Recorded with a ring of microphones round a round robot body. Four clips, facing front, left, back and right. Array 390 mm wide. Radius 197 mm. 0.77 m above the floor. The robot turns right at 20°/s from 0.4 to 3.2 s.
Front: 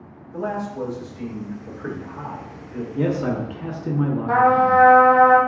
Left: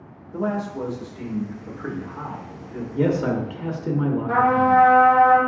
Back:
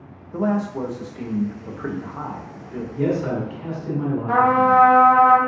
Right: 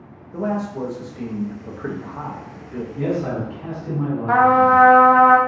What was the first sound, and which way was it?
A man speaking, 175° right.